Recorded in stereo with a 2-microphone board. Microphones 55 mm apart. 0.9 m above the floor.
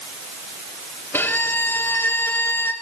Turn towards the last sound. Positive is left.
turn(degrees=40)  # may be behind; listen again after turning